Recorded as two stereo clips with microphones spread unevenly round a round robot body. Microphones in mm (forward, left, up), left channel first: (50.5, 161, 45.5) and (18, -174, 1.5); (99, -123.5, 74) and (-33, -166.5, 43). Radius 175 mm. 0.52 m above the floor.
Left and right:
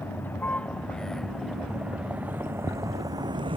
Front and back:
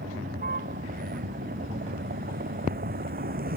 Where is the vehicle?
170° left; by 3.6 s 170° right.